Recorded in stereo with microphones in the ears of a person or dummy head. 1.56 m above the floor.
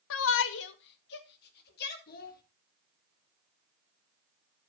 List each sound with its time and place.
0.1 s a shout: 65° left (ahead or behind), 0.9 m; by 2.0 s 55° left (ahead or behind), 3.5 m
2.1 s a child speaking: 45° left (ahead or behind), 1.8 m